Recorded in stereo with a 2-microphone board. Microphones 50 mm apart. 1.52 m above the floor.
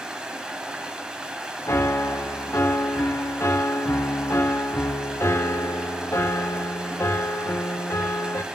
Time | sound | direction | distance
0.0 | running water | 15° right (ahead or behind) | 1.4 m
1.7 | a piano | 60° left (ahead or behind) | 0.6 m